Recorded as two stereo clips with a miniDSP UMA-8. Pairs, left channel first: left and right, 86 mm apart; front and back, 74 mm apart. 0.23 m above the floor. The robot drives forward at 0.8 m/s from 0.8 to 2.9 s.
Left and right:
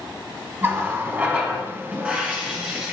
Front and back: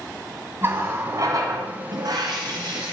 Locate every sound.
0.6 s a running tap: 140° right, 1.0 m; by 2.9 s 170° right, 2.5 m